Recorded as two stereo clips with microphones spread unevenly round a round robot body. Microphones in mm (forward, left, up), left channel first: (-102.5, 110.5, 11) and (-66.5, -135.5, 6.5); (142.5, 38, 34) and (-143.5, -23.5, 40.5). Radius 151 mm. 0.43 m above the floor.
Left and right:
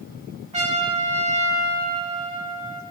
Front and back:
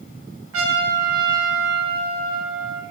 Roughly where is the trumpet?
Behind right.